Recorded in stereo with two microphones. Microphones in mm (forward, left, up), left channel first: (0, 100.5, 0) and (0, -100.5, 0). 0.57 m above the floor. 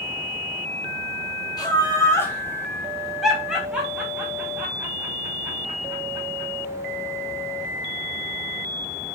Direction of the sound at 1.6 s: 20° left (ahead or behind).